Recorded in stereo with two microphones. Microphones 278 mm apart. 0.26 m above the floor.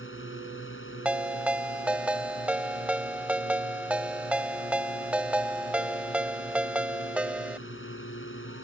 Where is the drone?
45° left (ahead or behind).